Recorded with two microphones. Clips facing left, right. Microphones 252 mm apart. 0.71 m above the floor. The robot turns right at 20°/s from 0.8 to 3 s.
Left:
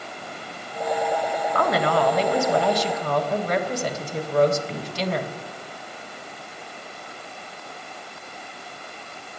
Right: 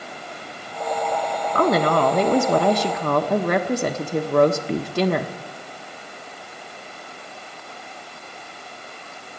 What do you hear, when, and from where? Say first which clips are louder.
1.6 s a woman speaking: right 4 dB; 40° right (ahead or behind), 1.0 m; by 5.3 s 60° right (ahead or behind), 1.0 m